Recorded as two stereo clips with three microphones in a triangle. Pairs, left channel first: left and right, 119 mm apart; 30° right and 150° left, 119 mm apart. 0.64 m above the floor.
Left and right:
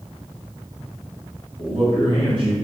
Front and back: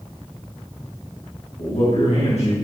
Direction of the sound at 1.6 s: 45° right.